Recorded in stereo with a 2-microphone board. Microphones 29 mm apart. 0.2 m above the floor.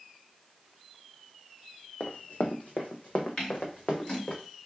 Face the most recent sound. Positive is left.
turn(degrees=45)  # may be behind; listen again after turning